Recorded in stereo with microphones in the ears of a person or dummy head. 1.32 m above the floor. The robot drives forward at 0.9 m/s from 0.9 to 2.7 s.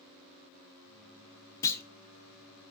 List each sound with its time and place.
1.6 s a clunk: 20° left (ahead or behind), 0.5 m; by 1.8 s 15° left (ahead or behind), 0.7 m